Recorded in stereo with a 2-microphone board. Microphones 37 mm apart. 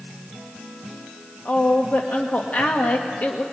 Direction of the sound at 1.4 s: 50° left (ahead or behind).